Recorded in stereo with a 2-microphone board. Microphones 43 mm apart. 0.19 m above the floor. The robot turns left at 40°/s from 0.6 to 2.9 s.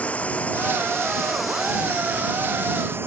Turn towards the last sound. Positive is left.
turn(degrees=-60)